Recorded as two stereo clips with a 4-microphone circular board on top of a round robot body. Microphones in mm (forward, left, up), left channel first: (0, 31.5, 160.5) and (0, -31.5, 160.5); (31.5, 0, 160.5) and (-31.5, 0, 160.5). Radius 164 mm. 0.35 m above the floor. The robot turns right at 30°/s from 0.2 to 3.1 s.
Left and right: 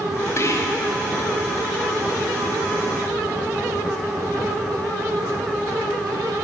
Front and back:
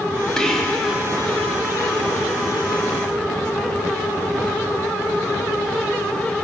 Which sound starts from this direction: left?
Whispering, at 0.4 s.